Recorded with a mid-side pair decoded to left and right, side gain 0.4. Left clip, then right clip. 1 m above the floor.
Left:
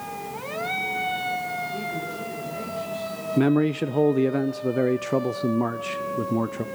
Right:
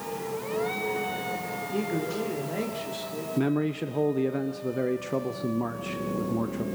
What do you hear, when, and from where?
1.7 s a man speaking: 60° right, 3 m
3.4 s a man speaking: 50° left, 0.5 m